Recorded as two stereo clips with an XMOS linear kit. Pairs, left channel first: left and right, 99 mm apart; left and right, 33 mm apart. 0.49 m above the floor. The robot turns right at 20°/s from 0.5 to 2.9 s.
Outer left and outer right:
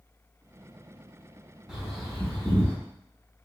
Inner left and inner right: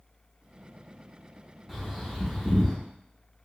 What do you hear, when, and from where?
1.7 s a bird: 5° right (ahead or behind), 0.9 m; by 2.8 s 10° left (ahead or behind), 0.9 m